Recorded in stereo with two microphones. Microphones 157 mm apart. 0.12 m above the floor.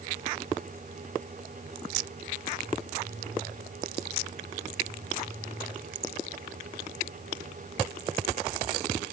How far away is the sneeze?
No sneeze in this recording.